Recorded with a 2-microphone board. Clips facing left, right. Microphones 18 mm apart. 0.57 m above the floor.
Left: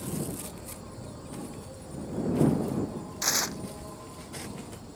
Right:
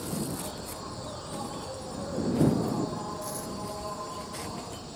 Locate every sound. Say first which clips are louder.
0.0 s an insect: right 2 dB; 45° right (ahead or behind)
3.2 s tearing paper: left 7 dB; 65° left (ahead or behind)